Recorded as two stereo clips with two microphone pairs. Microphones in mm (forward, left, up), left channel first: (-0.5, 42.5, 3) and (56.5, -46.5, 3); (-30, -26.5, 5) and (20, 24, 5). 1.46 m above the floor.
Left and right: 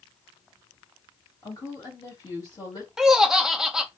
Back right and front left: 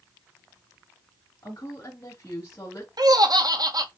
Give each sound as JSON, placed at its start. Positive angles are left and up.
{"t": 1.4, "sound": "a woman speaking", "azimuth_deg": 175, "distance_m": 2.5}
{"t": 3.0, "sound": "laughter", "azimuth_deg": 25, "distance_m": 0.9}